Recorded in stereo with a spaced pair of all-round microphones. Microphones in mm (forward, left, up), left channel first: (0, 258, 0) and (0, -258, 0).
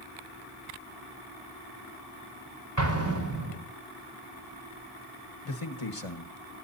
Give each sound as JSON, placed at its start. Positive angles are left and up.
{"t": 2.8, "sound": "an explosion", "side_deg": -35, "distance_m": 4.0}
{"t": 5.5, "sound": "a man speaking", "side_deg": 75, "distance_m": 1.5}